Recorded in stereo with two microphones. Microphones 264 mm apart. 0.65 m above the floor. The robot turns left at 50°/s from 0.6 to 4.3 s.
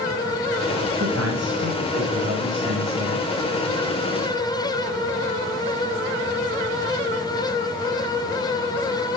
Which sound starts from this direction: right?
A man speaking, at 1.0 s.